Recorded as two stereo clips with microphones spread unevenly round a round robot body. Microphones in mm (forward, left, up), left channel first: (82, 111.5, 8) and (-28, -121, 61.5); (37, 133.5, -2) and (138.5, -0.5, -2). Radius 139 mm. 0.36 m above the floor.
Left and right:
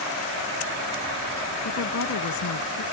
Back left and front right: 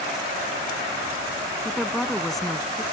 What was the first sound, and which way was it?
A woman speaking, 40° left.